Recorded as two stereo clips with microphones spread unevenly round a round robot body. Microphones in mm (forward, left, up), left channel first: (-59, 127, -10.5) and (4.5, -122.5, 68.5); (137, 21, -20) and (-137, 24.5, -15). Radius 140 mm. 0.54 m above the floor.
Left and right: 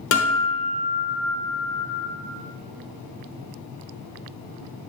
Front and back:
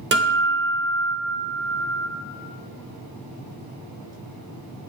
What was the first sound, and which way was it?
A guitar, 130° left.